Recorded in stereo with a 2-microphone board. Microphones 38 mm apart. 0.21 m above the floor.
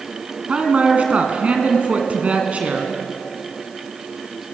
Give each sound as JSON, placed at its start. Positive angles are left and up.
{"t": 0.5, "sound": "a man speaking", "side_deg": -40, "distance_m": 2.5}